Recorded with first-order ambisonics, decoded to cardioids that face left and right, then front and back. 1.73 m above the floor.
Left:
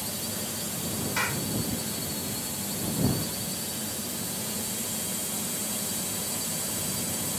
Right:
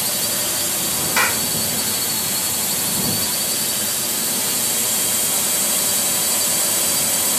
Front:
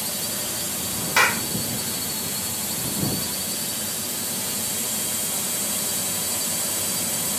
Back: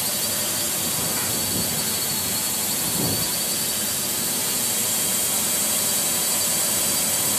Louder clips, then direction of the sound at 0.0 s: Right 12 dB, back 3 dB; 105° right.